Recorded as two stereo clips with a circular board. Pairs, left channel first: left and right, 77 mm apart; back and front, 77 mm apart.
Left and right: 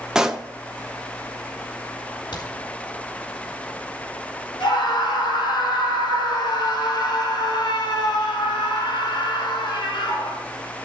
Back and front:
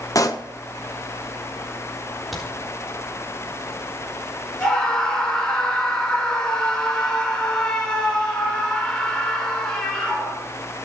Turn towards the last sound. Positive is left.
turn(degrees=100)